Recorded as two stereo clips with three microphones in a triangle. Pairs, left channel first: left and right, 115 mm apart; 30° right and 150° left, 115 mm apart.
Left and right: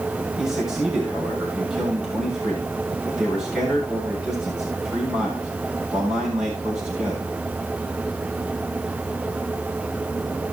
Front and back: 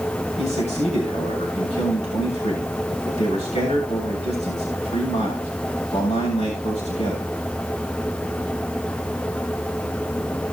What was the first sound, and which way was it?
A man speaking, 5° right.